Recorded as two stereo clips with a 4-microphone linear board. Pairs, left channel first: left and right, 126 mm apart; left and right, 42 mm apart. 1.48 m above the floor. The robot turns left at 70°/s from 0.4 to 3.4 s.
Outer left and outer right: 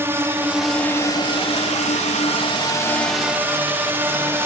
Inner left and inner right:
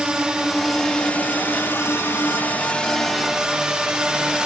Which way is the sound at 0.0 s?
20° right (ahead or behind).